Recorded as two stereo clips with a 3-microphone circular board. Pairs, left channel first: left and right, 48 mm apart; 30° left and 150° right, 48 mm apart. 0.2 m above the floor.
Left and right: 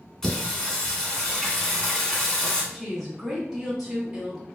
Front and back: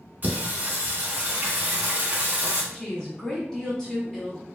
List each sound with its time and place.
0.2 s singing: 170° left, 0.8 m
2.7 s a woman speaking: 15° right, 1.1 m